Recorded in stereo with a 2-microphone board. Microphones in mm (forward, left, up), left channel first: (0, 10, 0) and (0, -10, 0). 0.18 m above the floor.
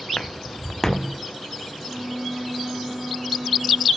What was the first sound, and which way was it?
Footsteps, 40° left (ahead or behind).